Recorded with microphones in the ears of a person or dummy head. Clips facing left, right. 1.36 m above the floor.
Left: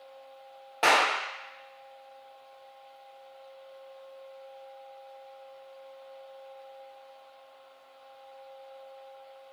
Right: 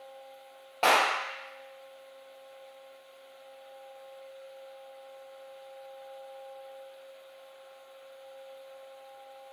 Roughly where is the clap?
Centre.